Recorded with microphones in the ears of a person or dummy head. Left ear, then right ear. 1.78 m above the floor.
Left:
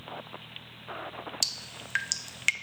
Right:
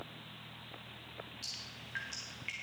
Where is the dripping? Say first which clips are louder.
Left 12 dB; 45° left (ahead or behind), 0.7 m.